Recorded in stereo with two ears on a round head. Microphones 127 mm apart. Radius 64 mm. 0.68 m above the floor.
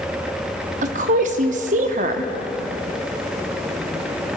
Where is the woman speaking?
55° right (ahead or behind), 0.9 m.